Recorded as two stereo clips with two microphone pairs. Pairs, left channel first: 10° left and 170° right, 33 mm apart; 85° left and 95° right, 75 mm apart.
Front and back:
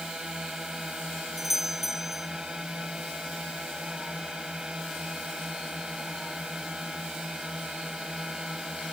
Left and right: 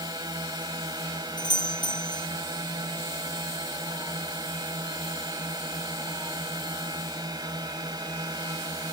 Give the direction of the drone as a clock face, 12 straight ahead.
3 o'clock.